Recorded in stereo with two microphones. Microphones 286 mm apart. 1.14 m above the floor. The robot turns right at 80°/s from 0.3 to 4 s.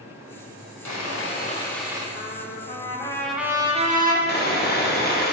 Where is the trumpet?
85° left, 0.8 m; by 4.2 s 125° right, 0.8 m.